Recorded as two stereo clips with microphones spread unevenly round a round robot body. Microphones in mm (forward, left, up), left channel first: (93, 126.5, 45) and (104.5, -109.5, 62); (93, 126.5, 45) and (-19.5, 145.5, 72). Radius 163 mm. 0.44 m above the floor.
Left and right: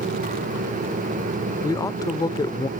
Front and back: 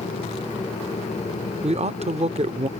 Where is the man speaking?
160° left.